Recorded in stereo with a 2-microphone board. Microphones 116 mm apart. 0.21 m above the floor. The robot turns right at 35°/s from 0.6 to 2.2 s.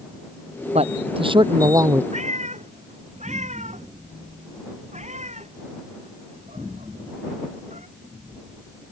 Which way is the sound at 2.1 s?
85° right.